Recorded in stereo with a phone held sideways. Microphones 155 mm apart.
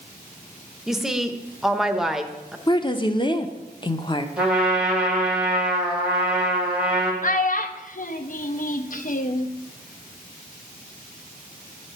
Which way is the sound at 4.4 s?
5° right (ahead or behind).